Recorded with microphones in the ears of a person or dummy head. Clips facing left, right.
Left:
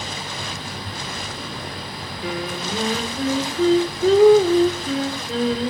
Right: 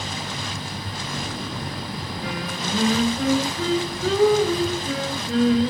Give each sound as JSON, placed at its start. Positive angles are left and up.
{"t": 2.2, "sound": "singing", "side_deg": 20, "distance_m": 2.5}